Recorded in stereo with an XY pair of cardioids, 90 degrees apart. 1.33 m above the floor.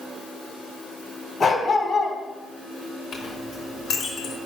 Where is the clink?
65° left, 3.5 m.